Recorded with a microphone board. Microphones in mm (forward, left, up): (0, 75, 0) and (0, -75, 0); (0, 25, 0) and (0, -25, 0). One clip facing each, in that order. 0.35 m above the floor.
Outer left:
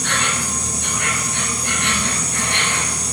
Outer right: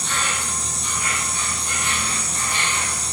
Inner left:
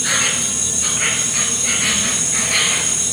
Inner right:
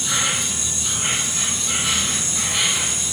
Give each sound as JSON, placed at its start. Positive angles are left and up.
{"t": 0.0, "sound": "an insect", "side_deg": 75, "distance_m": 2.0}